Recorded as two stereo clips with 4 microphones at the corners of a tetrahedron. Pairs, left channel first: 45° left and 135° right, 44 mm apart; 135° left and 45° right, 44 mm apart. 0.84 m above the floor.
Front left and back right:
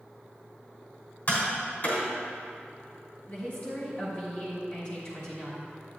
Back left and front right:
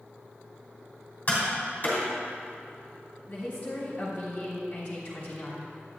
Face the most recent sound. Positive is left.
turn(degrees=75)